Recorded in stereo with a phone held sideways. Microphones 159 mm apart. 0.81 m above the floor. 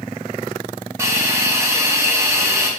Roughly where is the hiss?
Centre.